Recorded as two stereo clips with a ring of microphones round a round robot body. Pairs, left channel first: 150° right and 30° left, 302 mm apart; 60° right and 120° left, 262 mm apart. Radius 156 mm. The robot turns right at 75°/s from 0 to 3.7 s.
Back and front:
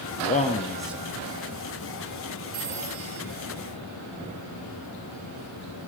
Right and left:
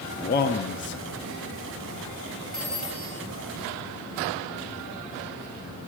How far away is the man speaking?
About 0.7 m.